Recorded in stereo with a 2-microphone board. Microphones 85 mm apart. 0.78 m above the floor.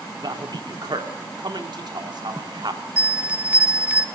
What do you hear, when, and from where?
0.2 s a man speaking: 60° right (ahead or behind), 2.5 m
3.0 s a bell: 20° right (ahead or behind), 1.0 m